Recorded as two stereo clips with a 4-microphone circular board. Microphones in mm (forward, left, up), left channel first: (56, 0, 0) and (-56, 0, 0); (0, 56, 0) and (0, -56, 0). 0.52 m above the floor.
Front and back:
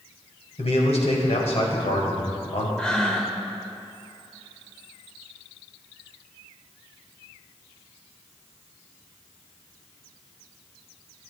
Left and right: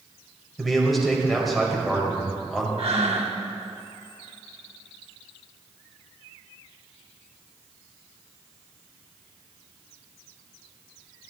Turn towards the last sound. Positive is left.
turn(degrees=-80)